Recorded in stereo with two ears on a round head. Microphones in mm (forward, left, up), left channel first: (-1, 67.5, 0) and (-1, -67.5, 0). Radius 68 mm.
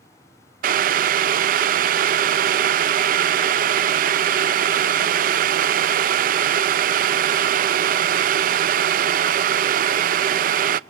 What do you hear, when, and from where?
0.6 s boiling: 55° right (ahead or behind), 0.6 m